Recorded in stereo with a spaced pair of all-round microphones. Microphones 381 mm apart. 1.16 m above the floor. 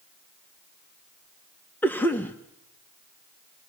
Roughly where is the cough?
Centre.